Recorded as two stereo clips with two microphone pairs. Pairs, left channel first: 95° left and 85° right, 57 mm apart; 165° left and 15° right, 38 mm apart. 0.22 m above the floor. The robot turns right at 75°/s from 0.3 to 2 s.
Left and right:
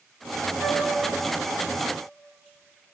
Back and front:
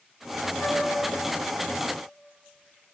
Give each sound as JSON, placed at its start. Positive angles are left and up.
{"t": 0.6, "sound": "a flute", "azimuth_deg": -155, "distance_m": 5.5}